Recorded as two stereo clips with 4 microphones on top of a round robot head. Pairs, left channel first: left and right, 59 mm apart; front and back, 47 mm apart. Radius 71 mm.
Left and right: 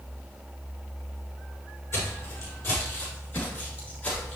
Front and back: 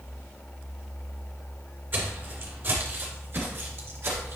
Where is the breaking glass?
I don't hear breaking glass.